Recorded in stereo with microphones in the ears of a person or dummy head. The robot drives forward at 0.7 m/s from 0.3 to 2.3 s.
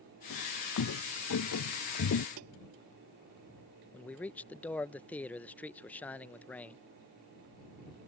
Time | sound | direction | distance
0.3 | footsteps | 65° left (ahead or behind) | ?
2.4 | tapping | 80° right | ?
3.9 | a man speaking | 10° left (ahead or behind) | ?